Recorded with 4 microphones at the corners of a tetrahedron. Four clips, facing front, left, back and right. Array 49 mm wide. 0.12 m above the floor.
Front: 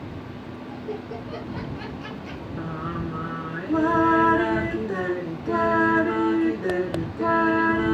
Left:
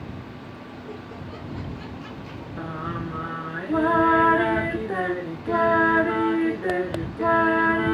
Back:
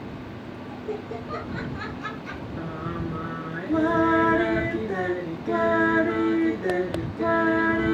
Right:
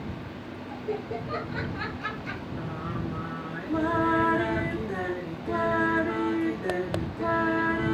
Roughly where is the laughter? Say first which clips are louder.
Right 9 dB, back 1 dB; right.